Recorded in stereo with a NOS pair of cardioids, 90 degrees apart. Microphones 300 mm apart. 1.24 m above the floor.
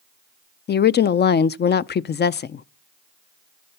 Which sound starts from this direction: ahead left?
A woman speaking, at 0.7 s.